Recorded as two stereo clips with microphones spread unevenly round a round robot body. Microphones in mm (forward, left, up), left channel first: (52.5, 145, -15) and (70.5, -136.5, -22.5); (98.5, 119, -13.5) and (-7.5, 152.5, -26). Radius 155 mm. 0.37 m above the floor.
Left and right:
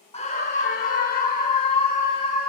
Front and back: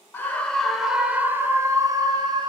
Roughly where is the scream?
Ahead left.